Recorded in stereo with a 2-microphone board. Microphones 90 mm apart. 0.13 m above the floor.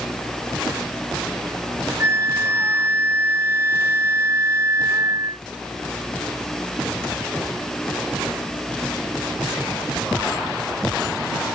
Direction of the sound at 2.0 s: 35° right (ahead or behind).